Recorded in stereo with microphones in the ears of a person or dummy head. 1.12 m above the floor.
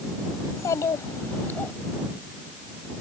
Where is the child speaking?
25° left (ahead or behind); by 1.7 s 20° left (ahead or behind).